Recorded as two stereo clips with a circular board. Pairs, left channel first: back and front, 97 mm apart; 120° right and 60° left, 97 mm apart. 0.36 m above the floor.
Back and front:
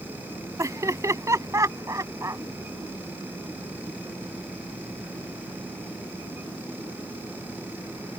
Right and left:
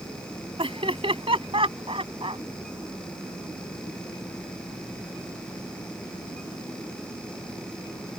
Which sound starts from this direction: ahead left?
Laughter, at 0.6 s.